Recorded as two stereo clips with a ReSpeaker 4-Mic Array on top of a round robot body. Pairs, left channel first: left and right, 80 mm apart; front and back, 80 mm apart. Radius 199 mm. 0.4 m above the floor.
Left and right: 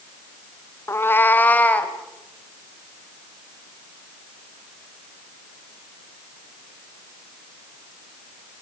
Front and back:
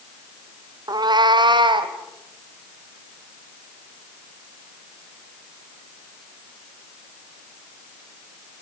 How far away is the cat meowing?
About 0.7 m.